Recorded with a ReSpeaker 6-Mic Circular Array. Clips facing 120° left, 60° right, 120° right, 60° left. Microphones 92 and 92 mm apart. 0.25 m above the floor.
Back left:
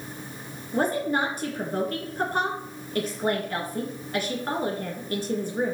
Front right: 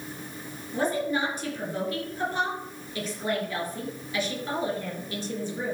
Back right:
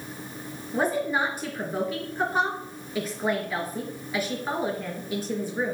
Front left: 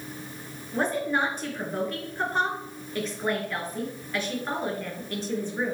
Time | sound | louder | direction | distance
0.7 | a woman speaking | back left 2 dB, back right 1 dB | 160° left | 3.5 m